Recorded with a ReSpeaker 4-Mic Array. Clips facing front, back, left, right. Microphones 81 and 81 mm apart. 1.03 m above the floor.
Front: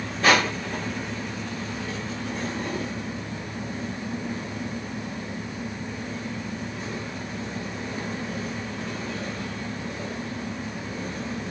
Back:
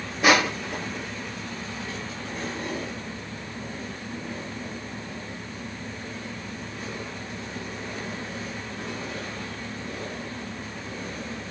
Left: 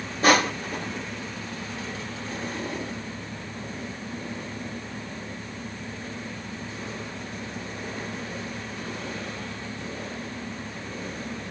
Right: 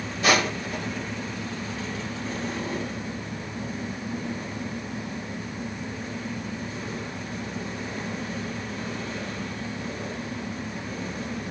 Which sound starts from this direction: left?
Crushing, at 0.2 s.